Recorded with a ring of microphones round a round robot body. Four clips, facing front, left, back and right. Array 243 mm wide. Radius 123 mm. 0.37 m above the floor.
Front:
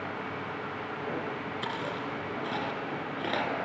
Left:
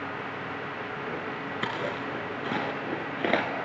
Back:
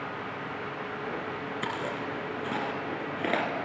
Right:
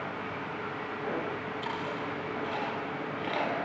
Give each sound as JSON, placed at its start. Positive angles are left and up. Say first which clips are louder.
{"t": 1.6, "sound": "chewing", "louder": "left 5 dB, back 2 dB", "azimuth_deg": 105, "distance_m": 2.5}